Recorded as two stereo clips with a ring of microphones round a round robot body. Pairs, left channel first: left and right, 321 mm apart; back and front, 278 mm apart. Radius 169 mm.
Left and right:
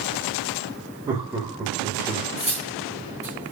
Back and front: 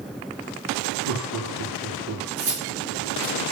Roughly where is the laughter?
Ahead.